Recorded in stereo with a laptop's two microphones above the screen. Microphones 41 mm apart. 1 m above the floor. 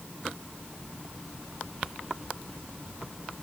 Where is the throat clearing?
No throat clearing in this recording.